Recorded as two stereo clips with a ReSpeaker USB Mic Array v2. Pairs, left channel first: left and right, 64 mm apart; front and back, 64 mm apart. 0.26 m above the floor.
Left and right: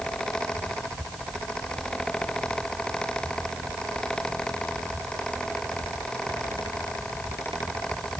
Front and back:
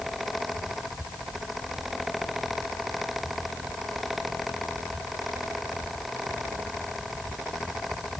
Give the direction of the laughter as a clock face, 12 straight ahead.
No laughter in this recording.